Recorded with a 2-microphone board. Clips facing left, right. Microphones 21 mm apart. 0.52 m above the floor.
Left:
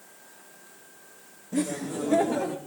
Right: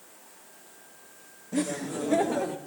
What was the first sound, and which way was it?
Laughter, 10° right (ahead or behind).